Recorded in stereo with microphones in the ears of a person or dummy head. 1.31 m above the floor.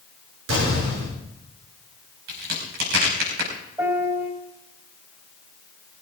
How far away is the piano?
About 4 m.